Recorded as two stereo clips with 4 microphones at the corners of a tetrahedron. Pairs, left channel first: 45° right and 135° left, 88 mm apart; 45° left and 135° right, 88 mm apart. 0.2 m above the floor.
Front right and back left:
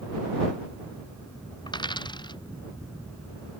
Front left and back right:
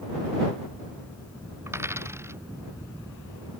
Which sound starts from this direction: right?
A dropped coin, at 1.7 s.